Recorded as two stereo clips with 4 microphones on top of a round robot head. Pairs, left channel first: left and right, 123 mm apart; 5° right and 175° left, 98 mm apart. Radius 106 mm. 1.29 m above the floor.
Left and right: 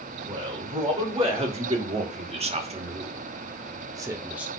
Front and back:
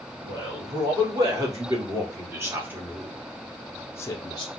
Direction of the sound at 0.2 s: 130° right.